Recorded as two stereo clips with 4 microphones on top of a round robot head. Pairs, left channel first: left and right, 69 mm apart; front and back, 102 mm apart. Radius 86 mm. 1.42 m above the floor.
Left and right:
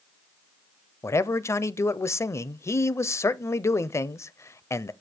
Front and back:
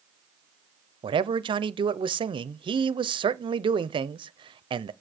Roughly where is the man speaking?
Behind left.